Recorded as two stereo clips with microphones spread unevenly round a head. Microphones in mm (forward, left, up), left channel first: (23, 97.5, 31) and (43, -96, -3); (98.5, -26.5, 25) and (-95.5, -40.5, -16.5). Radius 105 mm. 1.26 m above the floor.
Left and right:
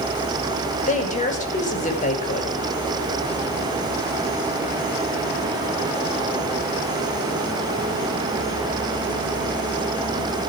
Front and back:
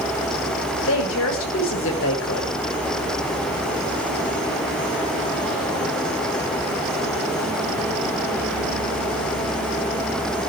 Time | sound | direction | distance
0.9 | a woman speaking | 40° left | 6 m